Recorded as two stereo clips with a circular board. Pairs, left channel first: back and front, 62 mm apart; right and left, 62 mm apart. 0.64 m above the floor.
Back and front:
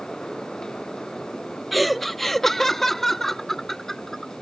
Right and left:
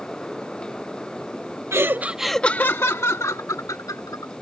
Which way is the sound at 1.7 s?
90° left.